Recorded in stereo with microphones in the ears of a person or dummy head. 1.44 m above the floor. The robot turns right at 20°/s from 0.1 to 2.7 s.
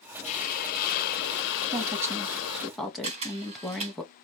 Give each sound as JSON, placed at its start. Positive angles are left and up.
{"t": 0.2, "sound": "a hiss", "azimuth_deg": 40, "distance_m": 0.6}
{"t": 1.7, "sound": "a woman speaking", "side_deg": -20, "distance_m": 2.0}
{"t": 3.0, "sound": "a camera shutter", "side_deg": -35, "distance_m": 3.0}